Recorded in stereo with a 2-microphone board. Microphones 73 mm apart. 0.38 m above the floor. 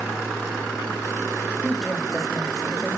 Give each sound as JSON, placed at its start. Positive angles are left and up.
{"t": 1.6, "sound": "a woman speaking", "side_deg": 0, "distance_m": 1.9}